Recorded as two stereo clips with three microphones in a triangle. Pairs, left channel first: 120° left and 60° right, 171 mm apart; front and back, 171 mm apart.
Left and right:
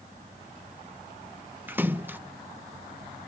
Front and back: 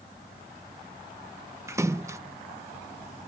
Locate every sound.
1.7 s a splash: 125° right